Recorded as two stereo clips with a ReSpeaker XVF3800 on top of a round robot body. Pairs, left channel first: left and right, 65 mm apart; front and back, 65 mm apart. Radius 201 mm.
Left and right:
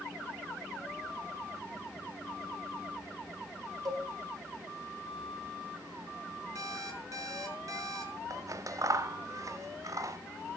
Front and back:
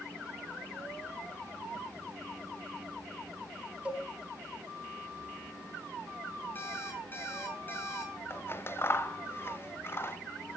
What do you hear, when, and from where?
3.9 s a cowbell: 110° right, 3.5 m
6.5 s an alarm clock: 60° right, 7 m
8.3 s scissors: 55° right, 1.3 m